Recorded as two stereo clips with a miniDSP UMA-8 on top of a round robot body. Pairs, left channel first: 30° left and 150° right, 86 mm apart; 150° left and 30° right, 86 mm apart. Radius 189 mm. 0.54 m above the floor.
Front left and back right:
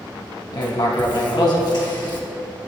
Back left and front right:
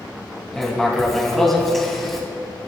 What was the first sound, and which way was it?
Writing, 60° left.